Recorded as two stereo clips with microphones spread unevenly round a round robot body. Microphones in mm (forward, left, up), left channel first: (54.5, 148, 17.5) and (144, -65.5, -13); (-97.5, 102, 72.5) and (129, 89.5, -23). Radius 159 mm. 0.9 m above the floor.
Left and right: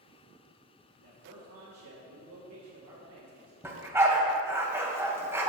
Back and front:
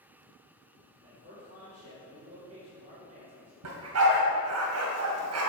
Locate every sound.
1.0 s a man speaking: 60° right, 2.5 m
3.6 s a dog barking: 15° left, 2 m